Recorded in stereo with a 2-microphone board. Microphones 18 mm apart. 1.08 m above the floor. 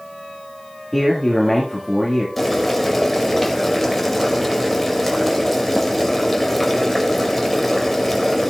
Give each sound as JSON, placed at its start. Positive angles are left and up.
{"t": 0.9, "sound": "a man speaking", "side_deg": 0, "distance_m": 1.8}
{"t": 2.4, "sound": "boiling", "side_deg": 0, "distance_m": 2.0}